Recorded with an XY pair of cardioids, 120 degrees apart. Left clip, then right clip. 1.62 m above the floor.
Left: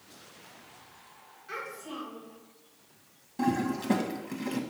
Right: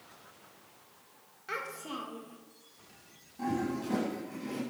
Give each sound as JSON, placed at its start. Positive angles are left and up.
{"t": 1.5, "sound": "a child speaking", "azimuth_deg": -45, "distance_m": 1.9}
{"t": 3.4, "sound": "a toilet flushing", "azimuth_deg": 65, "distance_m": 1.7}